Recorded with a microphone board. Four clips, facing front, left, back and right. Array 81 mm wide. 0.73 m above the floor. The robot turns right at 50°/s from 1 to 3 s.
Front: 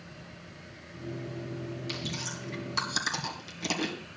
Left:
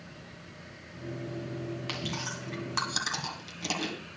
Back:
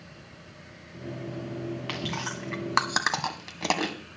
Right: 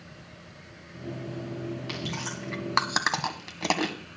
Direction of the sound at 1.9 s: 170° left.